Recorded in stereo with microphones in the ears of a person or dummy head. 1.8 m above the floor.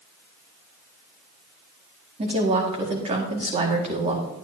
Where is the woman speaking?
30° right (ahead or behind), 2.0 m.